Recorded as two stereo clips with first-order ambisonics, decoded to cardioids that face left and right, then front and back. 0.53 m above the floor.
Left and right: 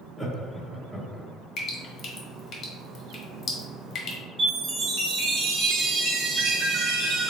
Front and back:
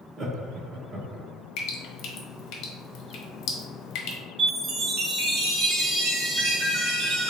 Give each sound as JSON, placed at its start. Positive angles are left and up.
{"t": 0.2, "sound": "laughter", "azimuth_deg": -170, "distance_m": 0.7}
{"t": 1.6, "sound": "dripping", "azimuth_deg": 35, "distance_m": 0.8}
{"t": 4.4, "sound": "a chime", "azimuth_deg": -145, "distance_m": 1.4}